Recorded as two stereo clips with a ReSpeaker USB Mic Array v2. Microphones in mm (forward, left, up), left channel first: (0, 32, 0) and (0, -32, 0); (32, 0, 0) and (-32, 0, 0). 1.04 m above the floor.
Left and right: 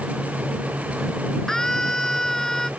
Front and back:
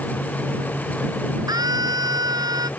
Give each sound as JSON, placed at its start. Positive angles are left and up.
{"t": 1.5, "sound": "a scream", "azimuth_deg": 170}